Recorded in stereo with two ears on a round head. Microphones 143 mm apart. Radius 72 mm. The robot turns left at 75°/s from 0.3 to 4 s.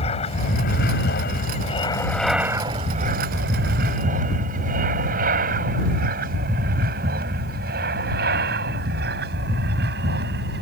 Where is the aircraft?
35° left (ahead or behind); by 10.6 s 65° right (ahead or behind).